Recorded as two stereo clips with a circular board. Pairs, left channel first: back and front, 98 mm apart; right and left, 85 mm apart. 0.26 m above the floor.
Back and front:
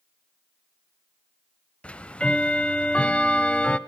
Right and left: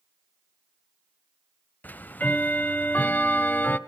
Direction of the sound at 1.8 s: 120° right.